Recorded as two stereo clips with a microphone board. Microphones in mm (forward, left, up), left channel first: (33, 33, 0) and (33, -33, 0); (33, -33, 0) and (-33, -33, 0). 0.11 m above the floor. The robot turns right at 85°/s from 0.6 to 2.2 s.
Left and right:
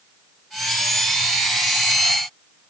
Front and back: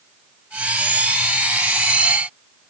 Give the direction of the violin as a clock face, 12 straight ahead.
No violin in this recording.